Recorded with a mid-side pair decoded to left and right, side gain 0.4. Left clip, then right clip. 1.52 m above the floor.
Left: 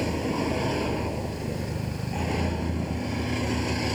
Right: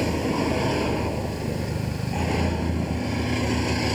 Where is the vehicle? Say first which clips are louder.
Right 3 dB; 30° right.